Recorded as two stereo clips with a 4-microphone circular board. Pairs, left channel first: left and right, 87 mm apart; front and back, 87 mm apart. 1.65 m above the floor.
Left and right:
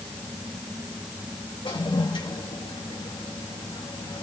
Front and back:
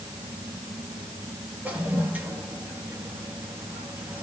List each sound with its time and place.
1.6 s a toilet flushing: 110° left, 2.5 m